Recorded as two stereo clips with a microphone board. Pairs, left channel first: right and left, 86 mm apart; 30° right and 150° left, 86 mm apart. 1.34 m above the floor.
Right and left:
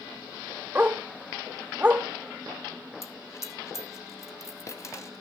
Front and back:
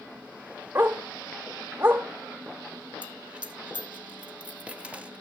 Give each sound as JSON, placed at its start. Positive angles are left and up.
{"t": 0.8, "sound": "a dog barking", "azimuth_deg": 135, "distance_m": 1.0}
{"t": 3.0, "sound": "a dropped coin", "azimuth_deg": -135, "distance_m": 1.3}